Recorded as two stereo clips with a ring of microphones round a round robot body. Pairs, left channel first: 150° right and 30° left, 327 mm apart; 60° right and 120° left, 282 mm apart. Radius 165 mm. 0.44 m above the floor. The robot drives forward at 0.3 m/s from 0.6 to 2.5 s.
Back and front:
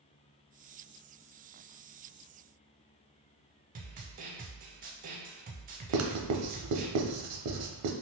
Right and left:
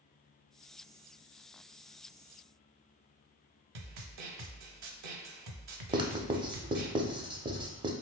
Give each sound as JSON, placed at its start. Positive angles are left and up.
{"t": 3.8, "sound": "a snare drum", "azimuth_deg": 95, "distance_m": 0.5}
{"t": 5.9, "sound": "writing", "azimuth_deg": 50, "distance_m": 0.6}